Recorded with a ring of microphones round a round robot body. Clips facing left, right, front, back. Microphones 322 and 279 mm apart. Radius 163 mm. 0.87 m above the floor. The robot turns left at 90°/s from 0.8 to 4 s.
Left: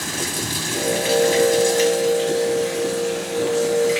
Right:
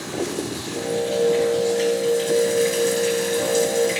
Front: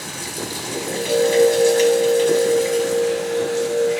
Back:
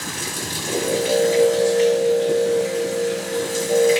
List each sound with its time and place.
0.0 s running water: 115° left, 2.5 m; by 4.0 s 170° right, 2.5 m